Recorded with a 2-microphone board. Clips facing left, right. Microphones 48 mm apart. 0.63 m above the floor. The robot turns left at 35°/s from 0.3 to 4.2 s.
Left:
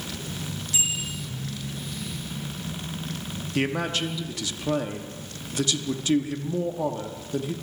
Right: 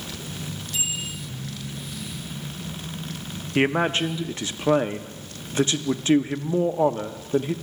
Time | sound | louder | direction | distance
0.7 | a bicycle bell | left 1 dB | 5° left (ahead or behind) | 9 m
3.5 | a man speaking | right 5 dB | 30° right (ahead or behind) | 0.6 m